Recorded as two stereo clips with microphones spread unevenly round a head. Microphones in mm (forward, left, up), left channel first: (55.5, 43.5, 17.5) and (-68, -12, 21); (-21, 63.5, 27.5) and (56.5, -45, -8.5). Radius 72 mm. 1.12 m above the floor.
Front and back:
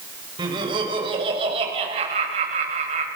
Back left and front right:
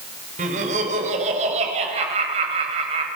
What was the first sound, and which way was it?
Laughter, 95° right.